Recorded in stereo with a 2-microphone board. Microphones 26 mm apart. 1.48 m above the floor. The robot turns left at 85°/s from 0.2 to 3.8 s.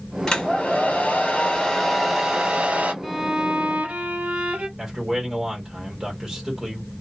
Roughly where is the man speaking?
Centre.